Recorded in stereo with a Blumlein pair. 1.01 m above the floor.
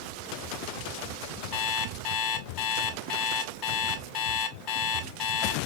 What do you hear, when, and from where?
1.5 s an alarm clock: 40° left, 0.9 m